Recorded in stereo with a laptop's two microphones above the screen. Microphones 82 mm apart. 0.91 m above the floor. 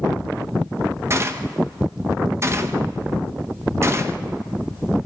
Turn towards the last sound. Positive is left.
turn(degrees=-35)  # may be behind; listen again after turning